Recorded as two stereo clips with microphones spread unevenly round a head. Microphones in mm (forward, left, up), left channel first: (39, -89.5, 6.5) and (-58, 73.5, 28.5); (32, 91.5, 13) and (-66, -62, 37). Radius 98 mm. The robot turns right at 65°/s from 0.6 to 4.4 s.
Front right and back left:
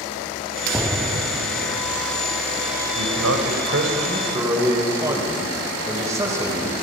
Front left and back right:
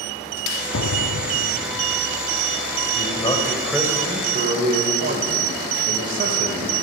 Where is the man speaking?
100° left, 4.5 m; by 6.7 s 165° right, 4.5 m.